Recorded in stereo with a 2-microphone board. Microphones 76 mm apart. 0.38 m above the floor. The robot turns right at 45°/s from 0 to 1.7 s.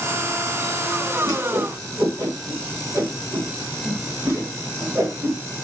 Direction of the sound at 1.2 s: 60° right (ahead or behind).